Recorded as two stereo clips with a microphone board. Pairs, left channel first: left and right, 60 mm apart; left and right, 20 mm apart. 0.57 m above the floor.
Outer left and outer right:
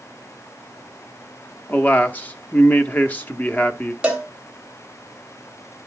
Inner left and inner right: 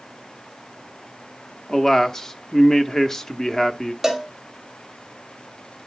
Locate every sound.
1.7 s a man speaking: 30° left (ahead or behind), 0.9 m
4.0 s a cowbell: 15° right (ahead or behind), 1.8 m